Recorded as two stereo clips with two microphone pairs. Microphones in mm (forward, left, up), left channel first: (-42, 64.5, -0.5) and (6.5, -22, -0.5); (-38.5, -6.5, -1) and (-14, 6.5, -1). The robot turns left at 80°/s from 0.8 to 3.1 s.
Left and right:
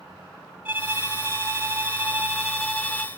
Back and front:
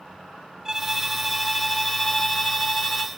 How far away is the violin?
About 1.1 m.